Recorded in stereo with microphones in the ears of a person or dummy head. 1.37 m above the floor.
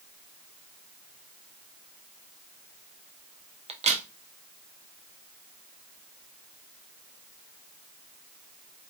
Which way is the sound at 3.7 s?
30° right (ahead or behind).